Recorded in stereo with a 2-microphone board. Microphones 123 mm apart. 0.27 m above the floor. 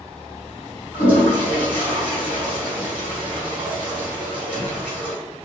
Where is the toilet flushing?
10° right (ahead or behind), 1.8 m.